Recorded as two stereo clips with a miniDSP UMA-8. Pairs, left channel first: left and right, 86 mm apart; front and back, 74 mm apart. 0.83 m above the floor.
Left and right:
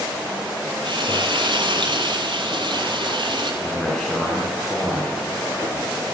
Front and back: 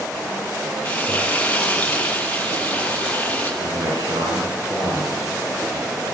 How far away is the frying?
About 7 m.